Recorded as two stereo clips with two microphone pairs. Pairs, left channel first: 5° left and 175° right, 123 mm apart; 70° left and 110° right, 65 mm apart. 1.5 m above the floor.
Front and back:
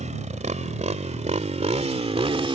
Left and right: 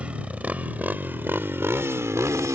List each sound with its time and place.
0.0 s a motorcycle: straight behind; by 2.5 s 135° right